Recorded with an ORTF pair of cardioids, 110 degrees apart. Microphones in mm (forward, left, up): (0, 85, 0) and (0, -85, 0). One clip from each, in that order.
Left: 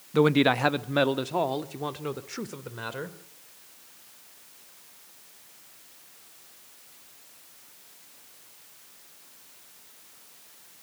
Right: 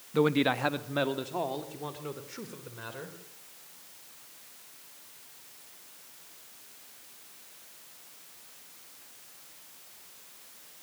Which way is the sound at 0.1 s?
25° left.